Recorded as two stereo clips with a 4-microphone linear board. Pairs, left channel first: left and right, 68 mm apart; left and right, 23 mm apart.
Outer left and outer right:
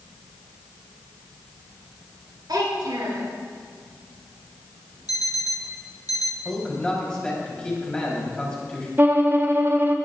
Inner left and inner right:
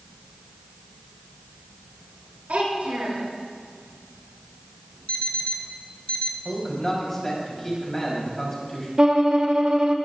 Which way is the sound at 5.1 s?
60° left (ahead or behind).